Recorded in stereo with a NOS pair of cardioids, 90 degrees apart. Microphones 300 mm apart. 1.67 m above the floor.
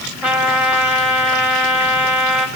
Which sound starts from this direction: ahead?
A trumpet, at 0.2 s.